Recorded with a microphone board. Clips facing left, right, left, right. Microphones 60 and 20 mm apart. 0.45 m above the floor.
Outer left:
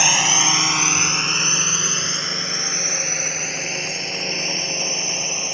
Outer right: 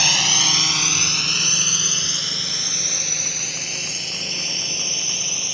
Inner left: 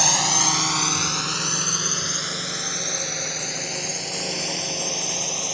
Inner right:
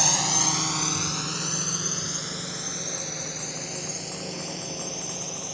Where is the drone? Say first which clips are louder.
Outer left 3 dB, inner left 4 dB; 20° left (ahead or behind); by 5.6 s 35° left (ahead or behind).